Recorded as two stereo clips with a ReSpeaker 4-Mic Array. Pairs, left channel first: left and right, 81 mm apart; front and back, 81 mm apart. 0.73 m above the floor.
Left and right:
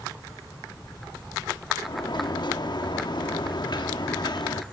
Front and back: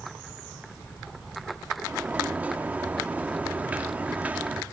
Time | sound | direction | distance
1.8 | a sliding door | 110° left | 0.7 m